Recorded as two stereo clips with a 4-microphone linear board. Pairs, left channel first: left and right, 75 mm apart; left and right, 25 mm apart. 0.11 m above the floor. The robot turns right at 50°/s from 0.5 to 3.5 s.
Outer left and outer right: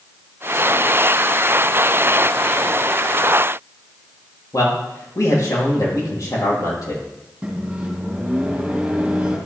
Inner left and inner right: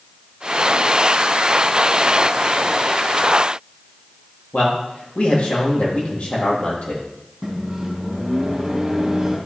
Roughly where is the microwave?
Centre.